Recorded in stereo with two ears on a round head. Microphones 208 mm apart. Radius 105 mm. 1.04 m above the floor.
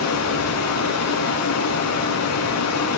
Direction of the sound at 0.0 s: 75° left (ahead or behind).